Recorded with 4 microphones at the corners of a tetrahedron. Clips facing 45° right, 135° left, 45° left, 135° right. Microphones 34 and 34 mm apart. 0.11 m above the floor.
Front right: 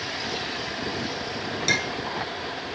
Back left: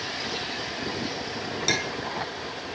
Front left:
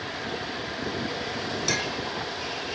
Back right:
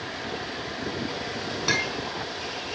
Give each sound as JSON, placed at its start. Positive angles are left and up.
{"t": 1.7, "sound": "a clink", "azimuth_deg": -120, "distance_m": 1.0}